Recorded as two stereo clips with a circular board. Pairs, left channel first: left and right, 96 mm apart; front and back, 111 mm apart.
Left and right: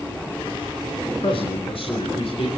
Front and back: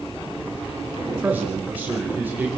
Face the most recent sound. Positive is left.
turn(degrees=105)